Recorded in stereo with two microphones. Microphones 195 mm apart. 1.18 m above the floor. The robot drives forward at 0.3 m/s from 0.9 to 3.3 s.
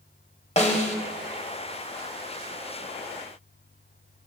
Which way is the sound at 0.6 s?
35° left (ahead or behind).